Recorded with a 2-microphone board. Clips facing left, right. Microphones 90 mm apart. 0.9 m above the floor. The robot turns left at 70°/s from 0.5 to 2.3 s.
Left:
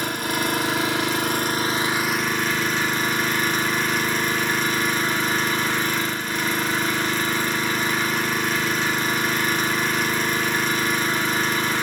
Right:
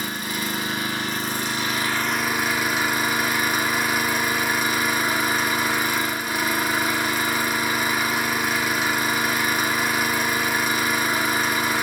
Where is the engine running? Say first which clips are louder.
Left 4 dB; 120° left, 1.1 m; by 11.8 s 10° right, 1.1 m.